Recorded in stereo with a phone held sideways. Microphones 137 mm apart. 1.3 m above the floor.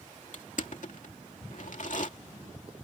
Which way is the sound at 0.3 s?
65° left (ahead or behind).